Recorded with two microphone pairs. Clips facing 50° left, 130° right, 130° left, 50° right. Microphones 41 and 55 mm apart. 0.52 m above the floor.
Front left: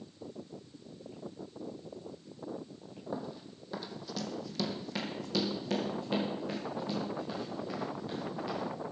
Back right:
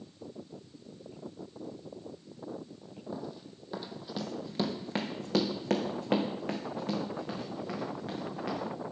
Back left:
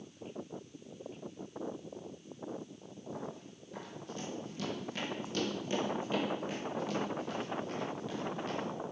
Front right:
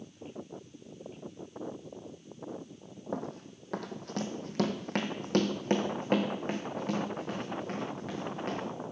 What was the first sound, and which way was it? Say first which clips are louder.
Running footsteps: front left 2 dB, front right 7 dB; 25° right.